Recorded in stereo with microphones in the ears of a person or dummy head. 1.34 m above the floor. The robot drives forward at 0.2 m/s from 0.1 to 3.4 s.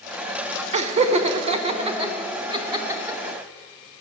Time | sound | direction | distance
0.7 | laughter | 40° right (ahead or behind) | 0.7 m